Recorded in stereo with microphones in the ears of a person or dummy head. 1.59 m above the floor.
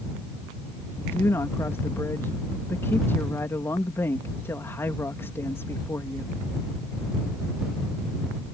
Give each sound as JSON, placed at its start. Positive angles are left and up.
{"t": 1.0, "sound": "a woman speaking", "side_deg": 10}